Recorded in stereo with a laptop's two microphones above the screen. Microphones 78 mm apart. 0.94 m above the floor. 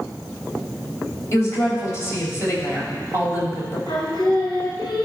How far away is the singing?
About 3.5 m.